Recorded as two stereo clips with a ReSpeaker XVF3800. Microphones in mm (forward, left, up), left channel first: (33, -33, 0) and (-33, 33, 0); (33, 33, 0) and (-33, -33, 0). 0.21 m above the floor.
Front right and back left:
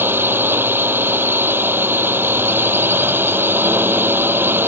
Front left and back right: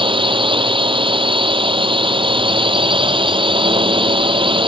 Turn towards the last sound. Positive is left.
turn(degrees=-160)